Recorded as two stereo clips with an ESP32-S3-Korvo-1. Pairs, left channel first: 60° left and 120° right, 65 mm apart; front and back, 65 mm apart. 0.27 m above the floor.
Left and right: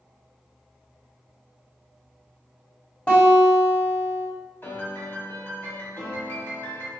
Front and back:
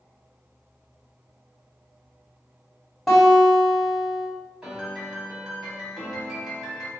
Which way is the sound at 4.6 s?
105° left.